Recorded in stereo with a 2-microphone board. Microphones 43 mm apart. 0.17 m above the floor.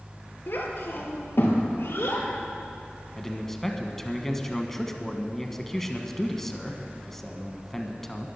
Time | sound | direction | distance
0.5 | a child speaking | 60° left (ahead or behind) | 3 m
3.1 | a man speaking | 10° left (ahead or behind) | 1.2 m